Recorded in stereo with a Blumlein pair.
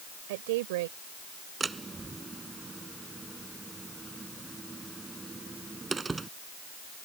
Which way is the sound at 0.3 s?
50° right.